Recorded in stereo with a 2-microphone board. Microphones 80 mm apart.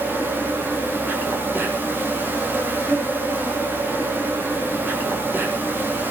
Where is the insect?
25° right (ahead or behind), 6 m.